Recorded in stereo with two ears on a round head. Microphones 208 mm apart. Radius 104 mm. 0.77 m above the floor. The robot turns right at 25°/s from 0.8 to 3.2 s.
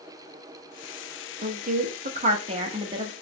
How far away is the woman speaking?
About 0.8 m.